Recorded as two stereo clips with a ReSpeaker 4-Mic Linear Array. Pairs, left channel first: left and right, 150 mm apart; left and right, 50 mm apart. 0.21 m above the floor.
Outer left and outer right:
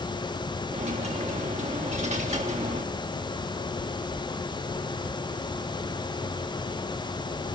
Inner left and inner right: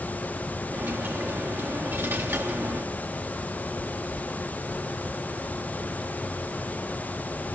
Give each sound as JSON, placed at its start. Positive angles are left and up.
{"t": 0.7, "sound": "a dropped coin", "side_deg": -50, "distance_m": 3.0}